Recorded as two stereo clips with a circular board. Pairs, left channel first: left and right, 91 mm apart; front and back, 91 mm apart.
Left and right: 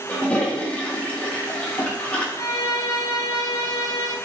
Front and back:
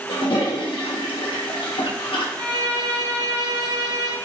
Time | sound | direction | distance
0.1 | a toilet flushing | 15° left | 0.7 m
2.4 | a violin | 135° left | 0.6 m